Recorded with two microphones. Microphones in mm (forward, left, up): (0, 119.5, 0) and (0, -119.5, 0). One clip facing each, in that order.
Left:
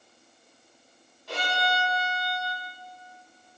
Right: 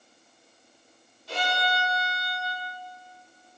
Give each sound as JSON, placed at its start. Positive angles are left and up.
{"t": 1.3, "sound": "a violin", "side_deg": 60, "distance_m": 0.9}